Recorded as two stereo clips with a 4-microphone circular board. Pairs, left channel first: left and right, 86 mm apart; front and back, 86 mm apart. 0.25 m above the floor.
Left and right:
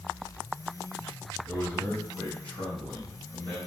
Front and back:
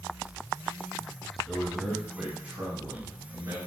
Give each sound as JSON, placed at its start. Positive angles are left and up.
{"t": 1.5, "sound": "a man speaking", "azimuth_deg": 65, "distance_m": 1.4}